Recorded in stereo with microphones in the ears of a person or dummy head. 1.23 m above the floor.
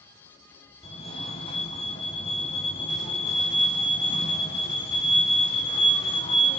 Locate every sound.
0.8 s a fire alarm: 30° left (ahead or behind), 1.4 m